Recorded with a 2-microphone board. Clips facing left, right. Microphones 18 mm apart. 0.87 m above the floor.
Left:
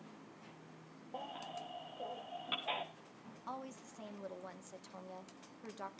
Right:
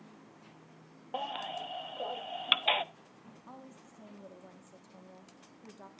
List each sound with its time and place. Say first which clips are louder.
1.1 s a baby crying: right 9 dB; 60° right (ahead or behind), 0.7 m
3.5 s a woman speaking: left 6 dB; 35° left (ahead or behind), 1.4 m